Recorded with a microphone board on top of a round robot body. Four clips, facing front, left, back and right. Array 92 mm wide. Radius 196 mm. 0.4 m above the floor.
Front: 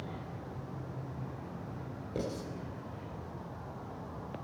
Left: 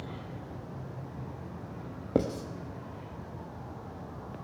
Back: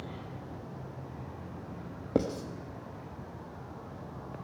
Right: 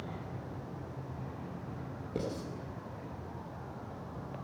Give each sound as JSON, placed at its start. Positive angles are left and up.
{"t": 2.1, "sound": "writing", "azimuth_deg": 130, "distance_m": 0.6}